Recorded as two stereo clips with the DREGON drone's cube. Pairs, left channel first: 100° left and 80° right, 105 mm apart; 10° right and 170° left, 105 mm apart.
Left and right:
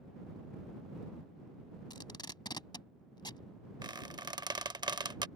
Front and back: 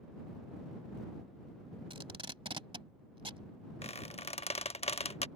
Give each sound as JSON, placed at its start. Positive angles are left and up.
{"t": 1.9, "sound": "tape being pulled", "azimuth_deg": 145}
{"t": 3.8, "sound": "a squeak", "azimuth_deg": -30}